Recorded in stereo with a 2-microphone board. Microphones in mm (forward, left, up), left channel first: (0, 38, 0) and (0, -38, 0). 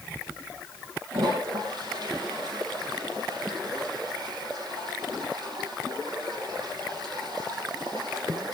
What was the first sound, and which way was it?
A toilet flushing, 70° right (ahead or behind).